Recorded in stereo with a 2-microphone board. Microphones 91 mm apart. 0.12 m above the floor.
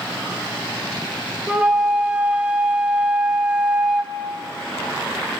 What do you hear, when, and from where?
1.5 s a flute: 10° right (ahead or behind), 3 m